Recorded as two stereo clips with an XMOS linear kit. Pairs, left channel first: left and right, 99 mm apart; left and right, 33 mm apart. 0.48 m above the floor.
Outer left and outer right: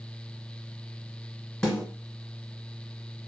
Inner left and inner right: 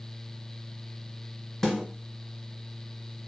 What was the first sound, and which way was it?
A snare drum, 10° left (ahead or behind).